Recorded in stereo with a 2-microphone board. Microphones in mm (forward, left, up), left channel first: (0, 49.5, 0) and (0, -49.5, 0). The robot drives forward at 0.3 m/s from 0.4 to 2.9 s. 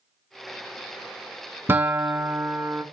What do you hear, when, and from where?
1.7 s a guitar: 20° right (ahead or behind), 0.5 m